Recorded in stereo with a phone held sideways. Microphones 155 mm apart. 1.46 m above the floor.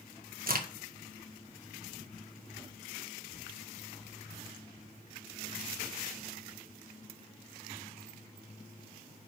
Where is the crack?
65° right (ahead or behind), 1.4 m.